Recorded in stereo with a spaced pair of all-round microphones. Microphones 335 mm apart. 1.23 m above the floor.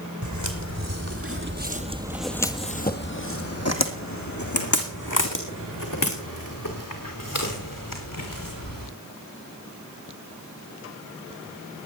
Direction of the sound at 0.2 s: 60° right (ahead or behind).